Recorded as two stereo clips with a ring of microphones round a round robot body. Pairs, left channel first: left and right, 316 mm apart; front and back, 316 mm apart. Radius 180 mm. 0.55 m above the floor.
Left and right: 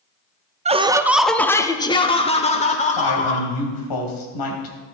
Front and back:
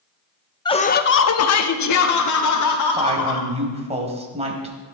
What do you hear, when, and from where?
0.7 s laughter: 55° right, 0.7 m; by 3.5 s 25° left, 2 m
3.0 s a woman speaking: 110° left, 3 m